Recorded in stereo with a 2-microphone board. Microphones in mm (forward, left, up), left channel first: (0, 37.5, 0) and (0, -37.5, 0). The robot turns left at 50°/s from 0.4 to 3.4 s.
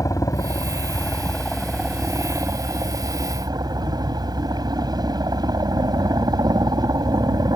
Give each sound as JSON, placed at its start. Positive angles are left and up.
{"t": 0.0, "sound": "a helicopter", "azimuth_deg": 60}